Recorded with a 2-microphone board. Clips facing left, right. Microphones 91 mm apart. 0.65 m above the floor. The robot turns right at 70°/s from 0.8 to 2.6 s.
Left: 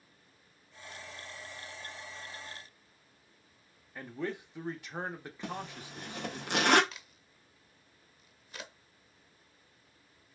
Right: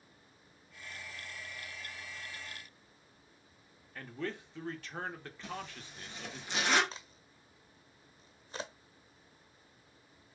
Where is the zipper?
60° left (ahead or behind), 0.7 m.